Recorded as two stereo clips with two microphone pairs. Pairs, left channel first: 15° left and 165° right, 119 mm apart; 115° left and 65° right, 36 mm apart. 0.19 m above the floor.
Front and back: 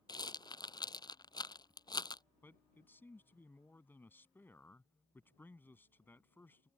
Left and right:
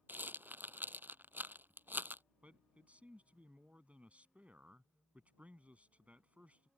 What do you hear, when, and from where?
0.1 s a rattle: 35° right
2.4 s a man speaking: 50° right